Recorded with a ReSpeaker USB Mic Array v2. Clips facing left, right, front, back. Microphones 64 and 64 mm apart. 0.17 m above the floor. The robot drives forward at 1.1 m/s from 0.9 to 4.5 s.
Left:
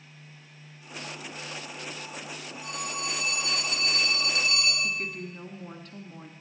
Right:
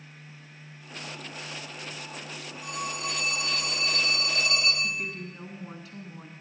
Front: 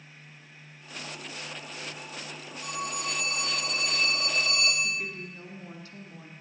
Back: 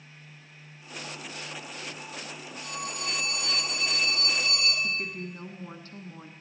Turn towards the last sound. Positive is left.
turn(degrees=-175)